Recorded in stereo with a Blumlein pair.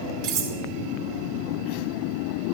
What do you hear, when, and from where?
0.2 s cutlery clinking: 40° right, 3 m